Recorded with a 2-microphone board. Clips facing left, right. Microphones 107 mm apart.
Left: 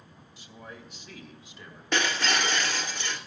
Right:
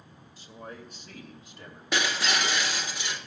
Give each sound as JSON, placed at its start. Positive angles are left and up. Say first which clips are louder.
{"t": 0.4, "sound": "a man speaking", "louder": "right 3 dB", "side_deg": -45, "distance_m": 2.0}
{"t": 1.9, "sound": "breaking glass", "louder": "left 1 dB", "side_deg": -10, "distance_m": 1.8}